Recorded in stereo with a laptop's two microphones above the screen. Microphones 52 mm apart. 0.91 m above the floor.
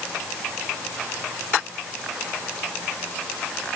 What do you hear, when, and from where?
Only background noise.